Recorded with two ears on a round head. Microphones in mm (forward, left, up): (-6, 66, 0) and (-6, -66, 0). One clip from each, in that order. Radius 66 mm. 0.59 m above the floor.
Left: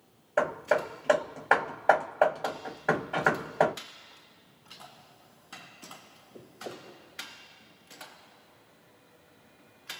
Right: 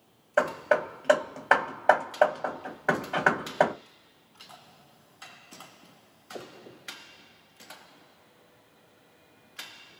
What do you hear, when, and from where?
0.4 s hammering: 20° right (ahead or behind), 1.1 m